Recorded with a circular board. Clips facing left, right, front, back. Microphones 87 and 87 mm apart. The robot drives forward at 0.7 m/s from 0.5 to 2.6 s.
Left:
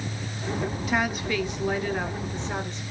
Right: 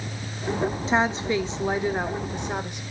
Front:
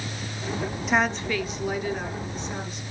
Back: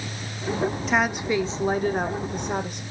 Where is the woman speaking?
85° right, 0.8 m; by 2.8 s 165° right, 1.4 m.